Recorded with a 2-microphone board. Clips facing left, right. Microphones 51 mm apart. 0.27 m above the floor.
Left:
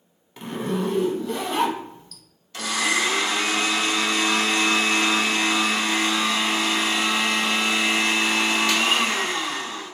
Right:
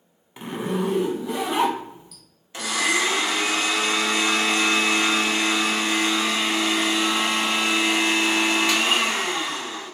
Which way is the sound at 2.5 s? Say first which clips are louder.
Even; 20° right (ahead or behind).